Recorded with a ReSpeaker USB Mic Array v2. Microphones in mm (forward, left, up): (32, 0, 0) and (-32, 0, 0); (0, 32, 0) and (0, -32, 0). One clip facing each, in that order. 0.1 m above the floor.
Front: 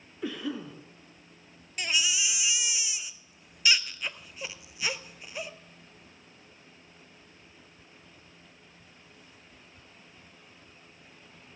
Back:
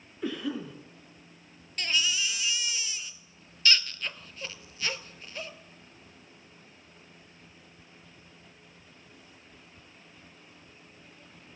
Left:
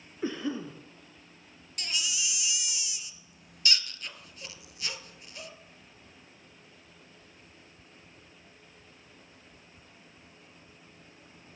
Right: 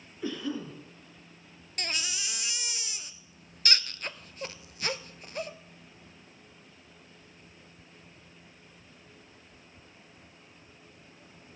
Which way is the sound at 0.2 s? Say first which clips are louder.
Back 1 dB, left 1 dB; 90° left.